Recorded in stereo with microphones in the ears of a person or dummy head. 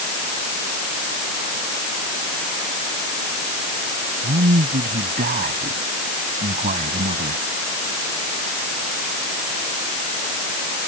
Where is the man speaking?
45° right (ahead or behind).